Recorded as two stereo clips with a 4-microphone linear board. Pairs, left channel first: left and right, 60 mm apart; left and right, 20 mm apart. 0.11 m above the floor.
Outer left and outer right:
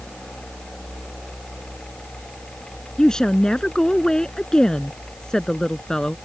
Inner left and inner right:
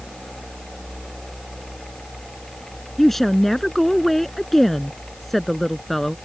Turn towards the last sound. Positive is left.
turn(degrees=10)  # may be behind; listen again after turning